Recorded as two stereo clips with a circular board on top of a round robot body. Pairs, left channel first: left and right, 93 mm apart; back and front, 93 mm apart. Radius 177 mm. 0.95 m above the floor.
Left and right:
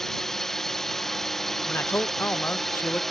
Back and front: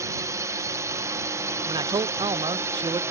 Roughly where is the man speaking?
Ahead left.